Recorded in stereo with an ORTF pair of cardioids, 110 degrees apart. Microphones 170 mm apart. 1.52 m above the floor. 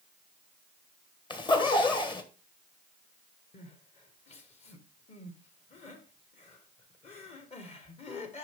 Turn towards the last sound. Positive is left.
turn(degrees=40)